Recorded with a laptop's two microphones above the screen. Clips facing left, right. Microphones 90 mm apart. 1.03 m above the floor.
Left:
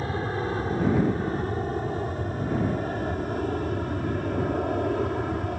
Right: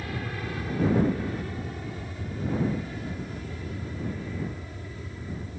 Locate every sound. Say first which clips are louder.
0.0 s an aircraft: left 6 dB; 30° left (ahead or behind); by 5.6 s 60° left (ahead or behind)